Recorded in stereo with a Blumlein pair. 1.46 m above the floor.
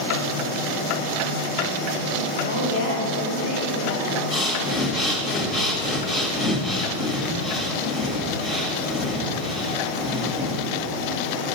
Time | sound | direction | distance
2.4 | a woman speaking | 65° left | 3 m
4.3 | breathing | 30° left | 2.5 m